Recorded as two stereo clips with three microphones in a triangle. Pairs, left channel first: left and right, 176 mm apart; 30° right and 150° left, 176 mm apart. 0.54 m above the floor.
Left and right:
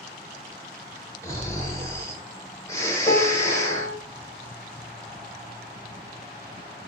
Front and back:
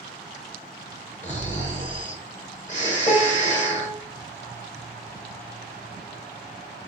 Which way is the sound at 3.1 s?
20° left.